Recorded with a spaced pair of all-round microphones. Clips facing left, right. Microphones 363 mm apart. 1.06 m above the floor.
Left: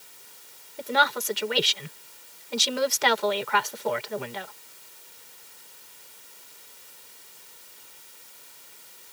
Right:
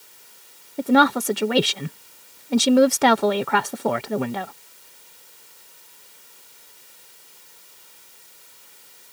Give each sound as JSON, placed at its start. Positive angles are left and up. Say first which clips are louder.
{"t": 0.8, "sound": "a woman speaking", "louder": "right 12 dB", "side_deg": -65}